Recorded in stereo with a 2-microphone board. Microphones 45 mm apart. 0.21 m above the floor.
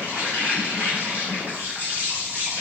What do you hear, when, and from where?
0.0 s an insect: 45° right (ahead or behind), 2 m